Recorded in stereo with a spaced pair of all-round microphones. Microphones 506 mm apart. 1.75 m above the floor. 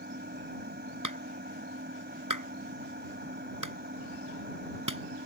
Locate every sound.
0.0 s an engine running: 20° right (ahead or behind)
1.0 s a clap: 35° right (ahead or behind)